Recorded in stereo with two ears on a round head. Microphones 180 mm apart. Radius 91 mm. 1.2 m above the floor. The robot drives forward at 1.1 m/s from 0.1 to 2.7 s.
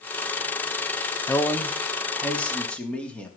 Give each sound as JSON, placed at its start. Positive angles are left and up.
{"t": 1.3, "sound": "a man speaking", "side_deg": 15, "distance_m": 1.0}